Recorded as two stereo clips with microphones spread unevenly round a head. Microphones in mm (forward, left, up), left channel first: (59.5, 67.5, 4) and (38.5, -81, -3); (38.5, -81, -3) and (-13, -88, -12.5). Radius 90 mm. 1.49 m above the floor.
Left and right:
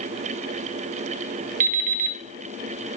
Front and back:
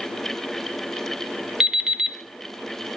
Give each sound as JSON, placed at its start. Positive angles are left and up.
{"t": 1.6, "sound": "an alarm clock", "azimuth_deg": -85, "distance_m": 1.0}